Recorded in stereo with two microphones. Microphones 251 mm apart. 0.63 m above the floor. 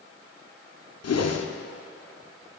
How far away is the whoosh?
About 0.5 m.